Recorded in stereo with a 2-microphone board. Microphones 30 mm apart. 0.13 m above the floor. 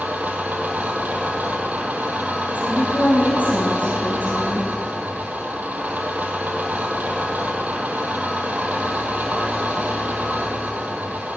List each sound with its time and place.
0.0 s an engine running: 75° right (ahead or behind), 2.5 m
2.5 s a woman speaking: 65° left (ahead or behind), 3.5 m